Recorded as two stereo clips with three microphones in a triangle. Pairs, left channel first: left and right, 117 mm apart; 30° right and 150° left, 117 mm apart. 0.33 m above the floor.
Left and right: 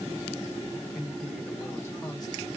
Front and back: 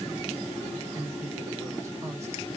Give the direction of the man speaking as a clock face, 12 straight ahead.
6 o'clock.